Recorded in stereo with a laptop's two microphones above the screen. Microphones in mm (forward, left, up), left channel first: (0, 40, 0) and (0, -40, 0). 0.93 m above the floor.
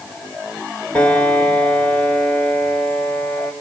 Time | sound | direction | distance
0.9 | a piano | 15° left (ahead or behind) | 1.6 m